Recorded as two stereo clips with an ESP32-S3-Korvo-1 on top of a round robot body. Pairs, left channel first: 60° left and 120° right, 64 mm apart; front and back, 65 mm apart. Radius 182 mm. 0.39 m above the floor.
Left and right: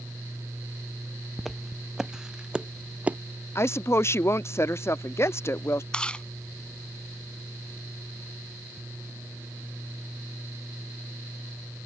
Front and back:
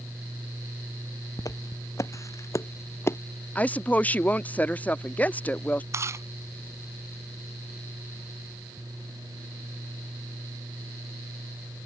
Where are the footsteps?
30° right; by 3.2 s 50° right.